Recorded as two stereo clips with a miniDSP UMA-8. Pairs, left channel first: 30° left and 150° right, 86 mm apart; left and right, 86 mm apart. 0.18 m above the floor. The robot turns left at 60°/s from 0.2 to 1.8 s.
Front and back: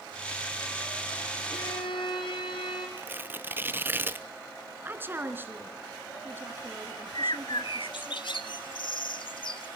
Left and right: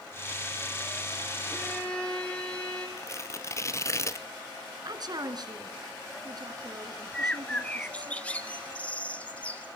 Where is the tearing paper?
145° left, 0.7 m.